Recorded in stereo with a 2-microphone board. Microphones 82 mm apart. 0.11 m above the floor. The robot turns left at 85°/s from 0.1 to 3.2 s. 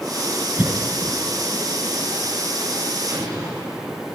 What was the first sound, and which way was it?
A cough, 20° right (ahead or behind).